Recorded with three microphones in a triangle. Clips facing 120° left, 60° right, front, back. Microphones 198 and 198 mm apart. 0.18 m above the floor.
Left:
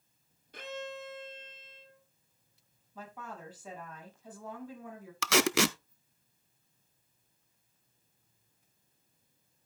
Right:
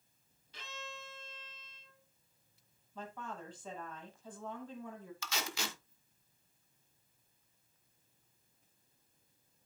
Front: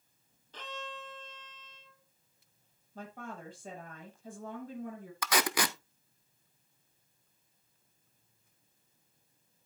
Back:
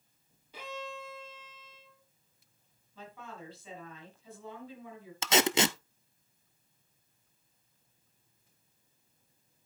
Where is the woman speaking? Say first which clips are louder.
Even, front 3 dB; 40° left, 6 m.